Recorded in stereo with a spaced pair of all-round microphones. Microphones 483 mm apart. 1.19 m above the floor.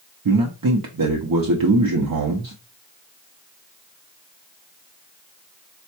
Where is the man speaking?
45° right (ahead or behind), 0.5 m.